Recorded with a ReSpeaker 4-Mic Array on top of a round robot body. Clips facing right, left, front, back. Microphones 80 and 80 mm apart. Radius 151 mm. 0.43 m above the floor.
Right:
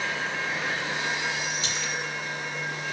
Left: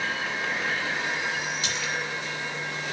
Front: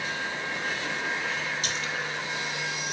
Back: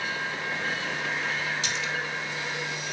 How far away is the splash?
About 3 m.